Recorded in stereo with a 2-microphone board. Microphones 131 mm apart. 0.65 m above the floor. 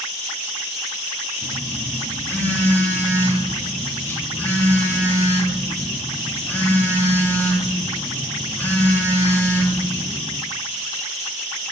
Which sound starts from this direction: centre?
A phone buzzing, at 1.4 s.